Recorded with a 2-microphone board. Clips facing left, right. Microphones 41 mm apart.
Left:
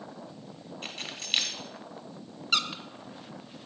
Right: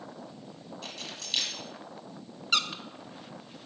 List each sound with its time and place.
0.8 s keys jangling: 40° left (ahead or behind), 1.2 m
2.5 s a squeak: centre (ahead or behind), 0.6 m